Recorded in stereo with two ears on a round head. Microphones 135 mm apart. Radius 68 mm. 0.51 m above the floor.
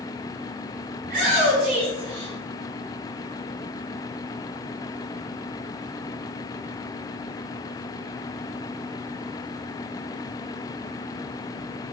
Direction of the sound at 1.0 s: 45° right (ahead or behind).